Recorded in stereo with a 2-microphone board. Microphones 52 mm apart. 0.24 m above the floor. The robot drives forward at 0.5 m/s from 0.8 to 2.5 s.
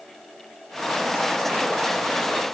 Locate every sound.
Only background noise.